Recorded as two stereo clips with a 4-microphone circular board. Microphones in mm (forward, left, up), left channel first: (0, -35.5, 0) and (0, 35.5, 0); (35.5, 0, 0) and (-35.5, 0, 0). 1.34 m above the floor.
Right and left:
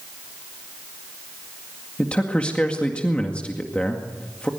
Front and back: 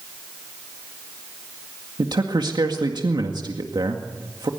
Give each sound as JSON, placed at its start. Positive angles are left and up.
{"t": 2.0, "sound": "a man speaking", "azimuth_deg": -165, "distance_m": 2.0}